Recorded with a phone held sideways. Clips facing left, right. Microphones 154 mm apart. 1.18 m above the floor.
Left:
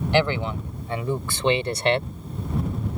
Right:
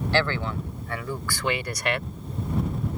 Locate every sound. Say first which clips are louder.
0.1 s a man speaking: left 4 dB; 20° left (ahead or behind); by 2.1 s 30° left (ahead or behind)